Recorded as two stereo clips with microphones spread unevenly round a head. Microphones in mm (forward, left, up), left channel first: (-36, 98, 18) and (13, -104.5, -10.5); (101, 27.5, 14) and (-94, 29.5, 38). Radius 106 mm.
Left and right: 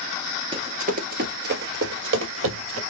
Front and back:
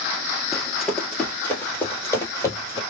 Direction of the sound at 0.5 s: 115° right.